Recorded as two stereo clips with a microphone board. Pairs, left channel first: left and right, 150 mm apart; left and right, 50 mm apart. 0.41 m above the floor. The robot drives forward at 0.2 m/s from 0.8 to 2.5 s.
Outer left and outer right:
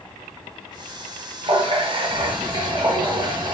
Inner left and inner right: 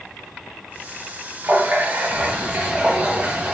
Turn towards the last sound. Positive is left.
turn(degrees=-30)  # may be behind; listen again after turning